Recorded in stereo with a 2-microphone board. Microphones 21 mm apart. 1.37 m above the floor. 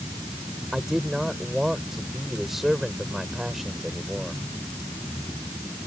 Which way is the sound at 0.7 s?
15° right (ahead or behind).